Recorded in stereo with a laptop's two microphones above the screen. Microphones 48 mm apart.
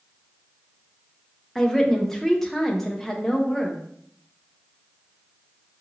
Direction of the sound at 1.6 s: 10° left (ahead or behind).